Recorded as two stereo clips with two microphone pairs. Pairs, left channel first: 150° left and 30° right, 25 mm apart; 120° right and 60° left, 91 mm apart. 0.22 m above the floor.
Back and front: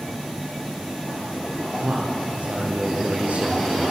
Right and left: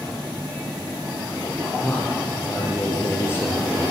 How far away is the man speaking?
About 6 m.